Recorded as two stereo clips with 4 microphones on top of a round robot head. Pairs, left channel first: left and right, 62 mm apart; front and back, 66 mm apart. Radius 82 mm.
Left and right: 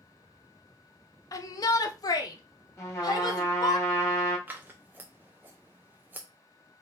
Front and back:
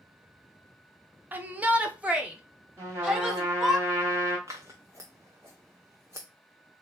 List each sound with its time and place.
1.3 s a shout: 120° left, 0.7 m; by 3.8 s 100° left, 2 m
2.8 s a trumpet: 130° left, 2.5 m
4.5 s scissors: 130° right, 0.6 m